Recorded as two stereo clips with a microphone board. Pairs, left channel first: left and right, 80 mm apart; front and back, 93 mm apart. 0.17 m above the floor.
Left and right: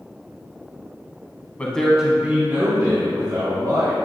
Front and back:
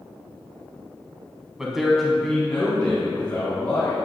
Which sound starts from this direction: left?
A man speaking, at 1.6 s.